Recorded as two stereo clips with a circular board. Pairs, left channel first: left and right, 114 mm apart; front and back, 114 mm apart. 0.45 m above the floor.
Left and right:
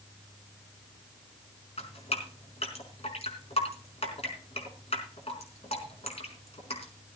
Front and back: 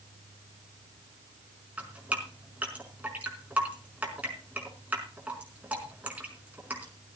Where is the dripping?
105° left, 4 m.